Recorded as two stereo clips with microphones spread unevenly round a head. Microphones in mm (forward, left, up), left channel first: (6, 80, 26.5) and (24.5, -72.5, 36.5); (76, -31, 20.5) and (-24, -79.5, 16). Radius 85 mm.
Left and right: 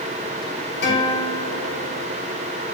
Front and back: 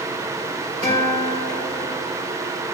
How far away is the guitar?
About 2 m.